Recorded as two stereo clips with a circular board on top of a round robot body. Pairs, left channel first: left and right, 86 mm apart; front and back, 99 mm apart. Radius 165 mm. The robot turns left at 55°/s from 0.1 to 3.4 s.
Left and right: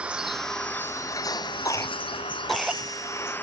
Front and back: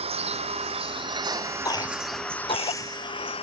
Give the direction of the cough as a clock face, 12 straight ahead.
10 o'clock.